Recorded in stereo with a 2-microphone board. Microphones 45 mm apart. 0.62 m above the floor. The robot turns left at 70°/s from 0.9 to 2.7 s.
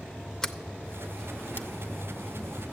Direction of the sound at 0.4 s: 15° left (ahead or behind).